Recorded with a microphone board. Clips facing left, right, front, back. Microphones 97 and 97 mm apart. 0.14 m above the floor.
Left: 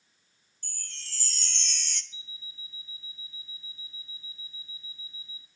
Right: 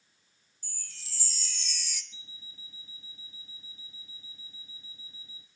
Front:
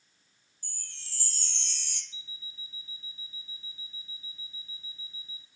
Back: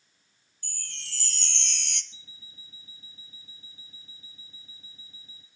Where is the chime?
170° right, 1.1 m.